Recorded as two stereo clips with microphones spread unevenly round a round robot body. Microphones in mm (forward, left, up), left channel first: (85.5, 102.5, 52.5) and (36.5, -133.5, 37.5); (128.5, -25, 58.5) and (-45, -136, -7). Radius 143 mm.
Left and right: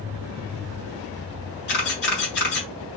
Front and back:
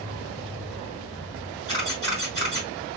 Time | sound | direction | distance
1.7 | a camera shutter | 115° left | 1.4 m